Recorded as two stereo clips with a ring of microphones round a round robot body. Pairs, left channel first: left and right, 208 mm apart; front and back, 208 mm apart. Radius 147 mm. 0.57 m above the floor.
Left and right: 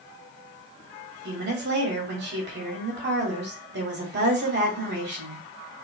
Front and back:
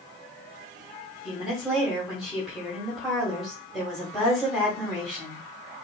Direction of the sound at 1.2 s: 90° right.